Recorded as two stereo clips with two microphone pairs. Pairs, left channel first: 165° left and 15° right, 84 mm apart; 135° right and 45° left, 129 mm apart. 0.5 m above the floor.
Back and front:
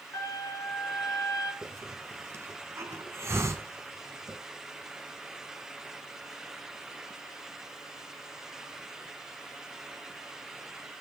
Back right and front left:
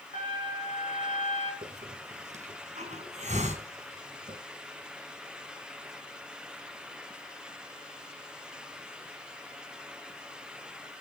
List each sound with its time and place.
0.1 s a trumpet: 150° right, 7 m
1.6 s a hiss: 40° left, 2.5 m